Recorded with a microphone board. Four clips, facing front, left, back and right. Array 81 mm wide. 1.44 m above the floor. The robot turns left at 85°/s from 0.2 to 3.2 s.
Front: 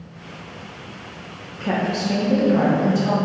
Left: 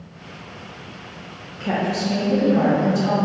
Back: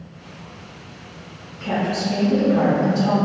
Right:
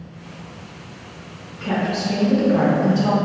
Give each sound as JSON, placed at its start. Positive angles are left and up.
{"t": 1.6, "sound": "a woman speaking", "azimuth_deg": 35, "distance_m": 1.4}